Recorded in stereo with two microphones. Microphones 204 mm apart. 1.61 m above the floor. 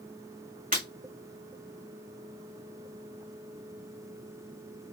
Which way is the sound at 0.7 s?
40° right (ahead or behind).